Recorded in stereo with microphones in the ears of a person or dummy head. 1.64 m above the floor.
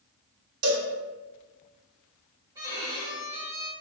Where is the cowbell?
85° right, 0.9 m.